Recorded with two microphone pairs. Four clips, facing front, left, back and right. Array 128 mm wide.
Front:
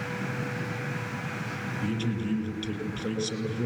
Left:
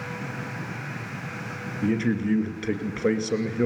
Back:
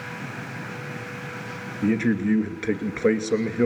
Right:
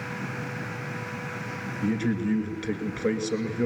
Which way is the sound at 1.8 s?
160° left.